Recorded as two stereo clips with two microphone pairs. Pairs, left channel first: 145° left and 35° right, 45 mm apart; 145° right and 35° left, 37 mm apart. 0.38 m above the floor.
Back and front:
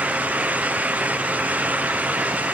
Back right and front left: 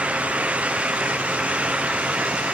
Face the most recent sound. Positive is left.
No sound to turn to.